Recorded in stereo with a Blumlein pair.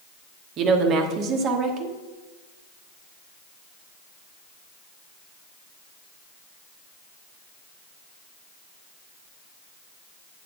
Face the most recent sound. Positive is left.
turn(degrees=-30)